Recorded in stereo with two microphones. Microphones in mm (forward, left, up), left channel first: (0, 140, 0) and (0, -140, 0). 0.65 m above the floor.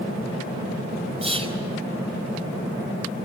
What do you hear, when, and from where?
1.2 s whispering: 20° right (ahead or behind), 4 m